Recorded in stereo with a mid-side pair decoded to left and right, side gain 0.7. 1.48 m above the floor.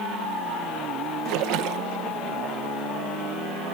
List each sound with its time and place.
1.2 s a splash: 65° right